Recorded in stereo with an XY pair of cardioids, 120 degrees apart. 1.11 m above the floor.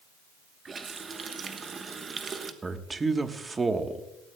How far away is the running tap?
About 1.1 m.